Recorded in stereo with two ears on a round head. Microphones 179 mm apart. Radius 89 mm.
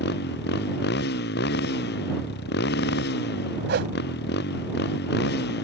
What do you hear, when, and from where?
0.0 s a motorcycle: 60° left (ahead or behind)
3.7 s a whoosh: 60° right (ahead or behind)